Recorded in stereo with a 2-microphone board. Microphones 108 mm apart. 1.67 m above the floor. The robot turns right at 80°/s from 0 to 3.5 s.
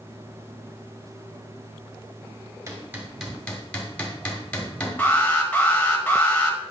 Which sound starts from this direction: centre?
An alarm, at 5.0 s.